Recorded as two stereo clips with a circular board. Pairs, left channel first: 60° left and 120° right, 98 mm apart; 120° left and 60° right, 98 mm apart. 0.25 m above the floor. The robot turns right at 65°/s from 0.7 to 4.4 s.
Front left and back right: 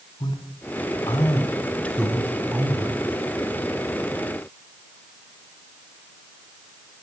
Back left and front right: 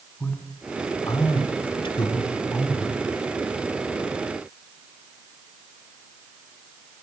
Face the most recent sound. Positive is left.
turn(degrees=-60)